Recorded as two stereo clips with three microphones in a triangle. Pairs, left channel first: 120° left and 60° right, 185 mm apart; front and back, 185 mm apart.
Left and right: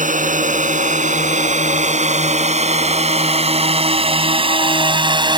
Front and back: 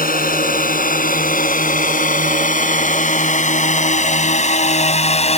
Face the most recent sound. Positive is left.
turn(degrees=-15)